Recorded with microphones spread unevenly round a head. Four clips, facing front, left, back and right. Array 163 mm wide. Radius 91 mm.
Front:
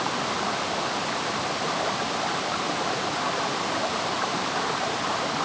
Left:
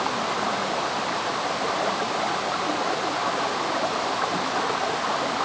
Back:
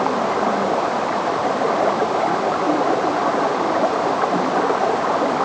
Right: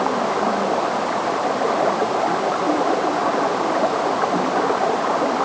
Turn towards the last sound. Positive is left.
turn(degrees=-140)